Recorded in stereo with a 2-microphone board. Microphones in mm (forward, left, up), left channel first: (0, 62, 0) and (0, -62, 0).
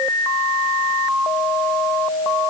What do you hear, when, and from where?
Only background noise.